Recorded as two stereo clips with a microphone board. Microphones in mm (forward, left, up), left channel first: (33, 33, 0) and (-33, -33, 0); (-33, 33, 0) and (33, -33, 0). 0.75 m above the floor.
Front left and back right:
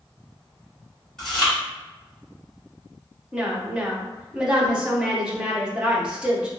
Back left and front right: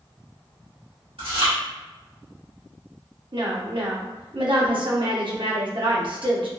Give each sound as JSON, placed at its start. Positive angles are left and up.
{"t": 1.2, "sound": "chewing", "azimuth_deg": -40, "distance_m": 2.0}
{"t": 3.3, "sound": "a woman speaking", "azimuth_deg": -55, "distance_m": 0.8}